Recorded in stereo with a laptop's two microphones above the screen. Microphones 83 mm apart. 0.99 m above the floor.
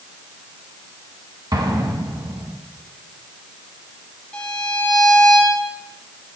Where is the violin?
15° left (ahead or behind), 3 m.